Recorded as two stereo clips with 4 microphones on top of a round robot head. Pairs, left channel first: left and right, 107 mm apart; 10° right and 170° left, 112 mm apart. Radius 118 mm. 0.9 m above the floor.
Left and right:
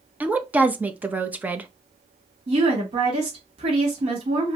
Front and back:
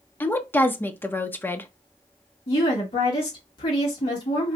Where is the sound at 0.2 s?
40° right, 0.8 m.